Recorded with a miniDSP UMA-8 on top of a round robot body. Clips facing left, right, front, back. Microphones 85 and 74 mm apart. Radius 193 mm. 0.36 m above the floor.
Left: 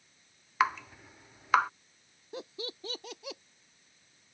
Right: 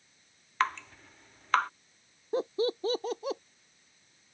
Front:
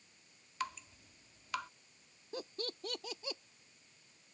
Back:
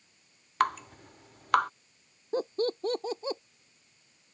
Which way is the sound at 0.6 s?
170° left.